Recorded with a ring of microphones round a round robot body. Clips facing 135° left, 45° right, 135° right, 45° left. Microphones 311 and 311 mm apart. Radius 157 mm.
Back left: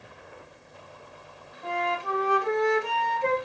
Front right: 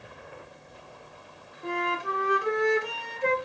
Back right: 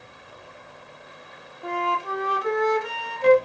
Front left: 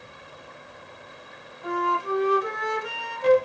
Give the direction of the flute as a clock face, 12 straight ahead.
4 o'clock.